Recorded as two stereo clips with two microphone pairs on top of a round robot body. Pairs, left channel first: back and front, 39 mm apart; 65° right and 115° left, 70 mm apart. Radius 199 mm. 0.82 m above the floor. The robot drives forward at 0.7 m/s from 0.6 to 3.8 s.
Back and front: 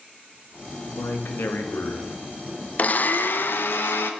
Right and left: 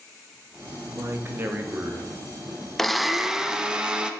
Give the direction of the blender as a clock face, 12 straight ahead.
5 o'clock.